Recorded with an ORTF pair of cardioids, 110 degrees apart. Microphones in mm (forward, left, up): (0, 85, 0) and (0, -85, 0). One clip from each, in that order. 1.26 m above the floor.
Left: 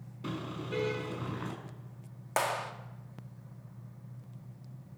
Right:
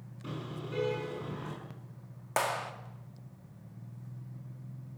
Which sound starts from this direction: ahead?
A clap, at 2.4 s.